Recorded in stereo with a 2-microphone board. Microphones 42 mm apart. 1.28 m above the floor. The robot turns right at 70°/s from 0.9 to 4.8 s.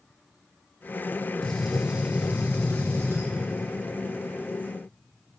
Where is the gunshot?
160° left, 1.3 m; by 3.3 s 70° right, 1.3 m.